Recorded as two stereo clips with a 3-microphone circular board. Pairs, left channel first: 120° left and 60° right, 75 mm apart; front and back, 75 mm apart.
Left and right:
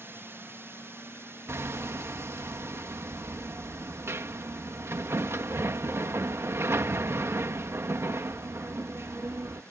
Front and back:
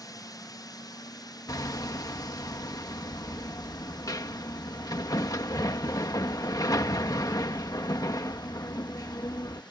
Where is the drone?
10° right.